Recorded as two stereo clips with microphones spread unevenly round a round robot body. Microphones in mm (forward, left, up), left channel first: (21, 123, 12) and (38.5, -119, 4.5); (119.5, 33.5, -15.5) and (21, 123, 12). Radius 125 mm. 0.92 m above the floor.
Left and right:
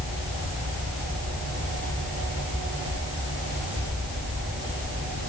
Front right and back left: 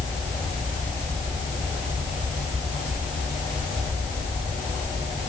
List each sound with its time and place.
Only background noise.